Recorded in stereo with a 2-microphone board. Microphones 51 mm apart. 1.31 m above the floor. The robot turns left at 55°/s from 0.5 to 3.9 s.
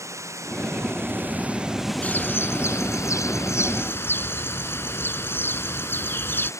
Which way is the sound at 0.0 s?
100° right.